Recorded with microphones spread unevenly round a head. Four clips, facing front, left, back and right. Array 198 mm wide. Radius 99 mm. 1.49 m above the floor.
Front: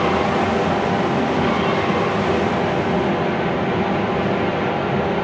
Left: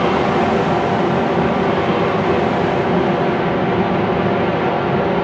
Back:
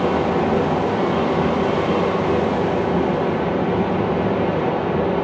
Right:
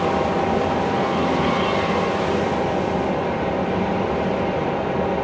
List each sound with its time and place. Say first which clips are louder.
0.0 s a fan: left 4 dB, even; 70° left, 0.9 m